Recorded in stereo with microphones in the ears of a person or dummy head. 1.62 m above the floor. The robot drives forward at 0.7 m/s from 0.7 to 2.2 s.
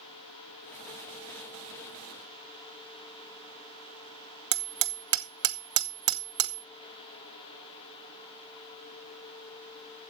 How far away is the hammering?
About 0.9 m.